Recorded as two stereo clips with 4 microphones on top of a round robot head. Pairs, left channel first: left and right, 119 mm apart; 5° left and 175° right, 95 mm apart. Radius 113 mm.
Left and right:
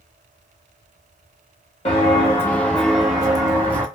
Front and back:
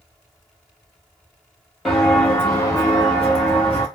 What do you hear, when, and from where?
1.9 s footsteps: 95° left, 0.7 m; by 3.9 s 40° right, 0.9 m